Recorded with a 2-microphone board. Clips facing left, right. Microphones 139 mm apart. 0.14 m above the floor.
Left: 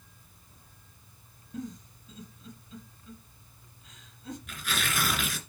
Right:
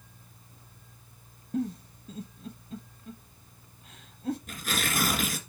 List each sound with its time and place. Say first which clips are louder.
1.5 s a giggle: right 8 dB; 60° right (ahead or behind), 1.0 m
4.5 s tearing paper: right 2 dB; 45° right (ahead or behind), 1.8 m